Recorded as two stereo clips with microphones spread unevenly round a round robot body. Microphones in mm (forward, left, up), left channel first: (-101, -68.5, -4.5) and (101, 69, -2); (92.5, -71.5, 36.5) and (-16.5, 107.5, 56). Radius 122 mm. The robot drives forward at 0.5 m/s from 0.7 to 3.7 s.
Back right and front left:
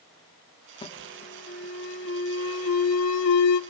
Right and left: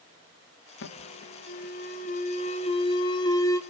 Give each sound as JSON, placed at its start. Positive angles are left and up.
{"t": 0.8, "sound": "an alarm", "azimuth_deg": -75, "distance_m": 1.3}